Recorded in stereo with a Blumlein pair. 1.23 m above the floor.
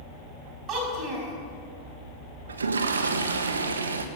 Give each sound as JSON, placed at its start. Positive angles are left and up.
{"t": 0.7, "sound": "a child speaking", "azimuth_deg": -35, "distance_m": 4.5}
{"t": 2.5, "sound": "a toilet flushing", "azimuth_deg": -70, "distance_m": 1.2}